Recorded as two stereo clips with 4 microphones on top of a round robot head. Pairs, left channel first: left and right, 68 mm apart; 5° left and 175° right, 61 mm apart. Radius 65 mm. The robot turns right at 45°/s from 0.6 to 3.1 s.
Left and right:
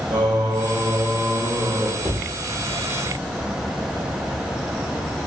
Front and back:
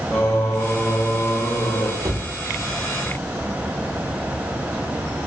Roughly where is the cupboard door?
Behind.